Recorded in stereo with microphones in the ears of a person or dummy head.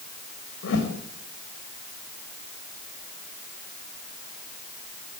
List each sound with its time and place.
0.6 s a whoosh: 80° left, 5.5 m